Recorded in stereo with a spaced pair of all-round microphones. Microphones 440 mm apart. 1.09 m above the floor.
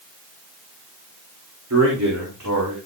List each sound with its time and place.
1.7 s a man speaking: 35° right (ahead or behind), 3 m; by 2.8 s 45° right (ahead or behind), 3.5 m